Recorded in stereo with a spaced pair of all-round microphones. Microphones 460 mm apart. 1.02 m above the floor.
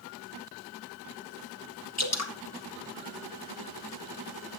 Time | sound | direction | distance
2.0 | dripping | 35° left (ahead or behind) | 1.2 m